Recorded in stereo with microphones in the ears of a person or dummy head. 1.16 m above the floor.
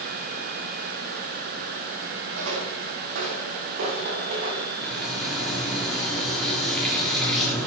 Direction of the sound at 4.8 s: 5° left (ahead or behind).